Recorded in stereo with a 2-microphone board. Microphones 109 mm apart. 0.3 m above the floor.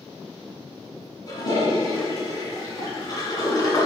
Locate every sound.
1.3 s a toilet flushing: 40° left (ahead or behind), 2.5 m